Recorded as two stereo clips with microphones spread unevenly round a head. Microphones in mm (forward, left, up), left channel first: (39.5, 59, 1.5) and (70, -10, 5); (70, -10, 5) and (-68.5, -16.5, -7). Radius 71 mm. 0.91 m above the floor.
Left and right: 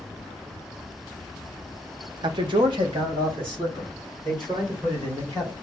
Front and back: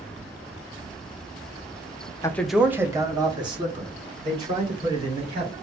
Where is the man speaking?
65° right, 0.7 m; by 5.5 s 130° right, 4.5 m.